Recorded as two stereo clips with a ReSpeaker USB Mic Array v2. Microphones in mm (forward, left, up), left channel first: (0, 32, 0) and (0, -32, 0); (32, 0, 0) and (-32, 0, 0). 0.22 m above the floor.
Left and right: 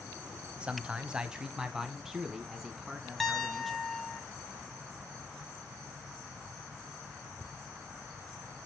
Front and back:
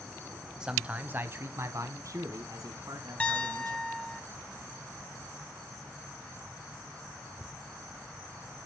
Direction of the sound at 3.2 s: 10° left.